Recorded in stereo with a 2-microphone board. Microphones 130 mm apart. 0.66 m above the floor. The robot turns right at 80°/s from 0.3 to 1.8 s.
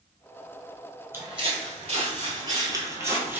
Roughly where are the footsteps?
Centre.